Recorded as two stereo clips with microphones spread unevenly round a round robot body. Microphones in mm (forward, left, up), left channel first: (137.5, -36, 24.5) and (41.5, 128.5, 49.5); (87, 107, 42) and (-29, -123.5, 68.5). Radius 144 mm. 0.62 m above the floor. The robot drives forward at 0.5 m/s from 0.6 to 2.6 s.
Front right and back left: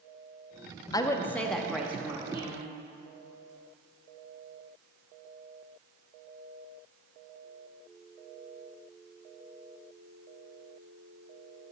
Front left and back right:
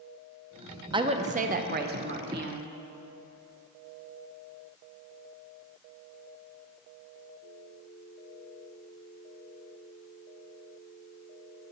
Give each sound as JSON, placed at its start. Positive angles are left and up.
{"t": 0.9, "sound": "a woman speaking", "azimuth_deg": -50, "distance_m": 0.6}